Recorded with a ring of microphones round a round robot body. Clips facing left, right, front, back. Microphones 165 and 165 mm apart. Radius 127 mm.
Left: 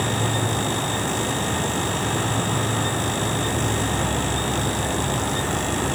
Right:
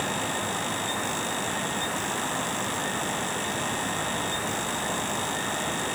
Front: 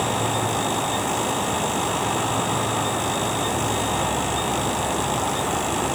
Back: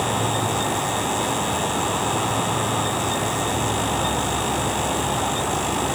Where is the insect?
90° left.